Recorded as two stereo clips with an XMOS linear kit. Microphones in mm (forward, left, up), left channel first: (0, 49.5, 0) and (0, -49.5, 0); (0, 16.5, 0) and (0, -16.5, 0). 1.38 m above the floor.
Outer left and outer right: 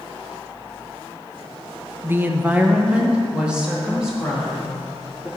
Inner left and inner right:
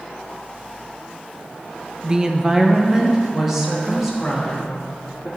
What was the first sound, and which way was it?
A woman speaking, 25° right (ahead or behind).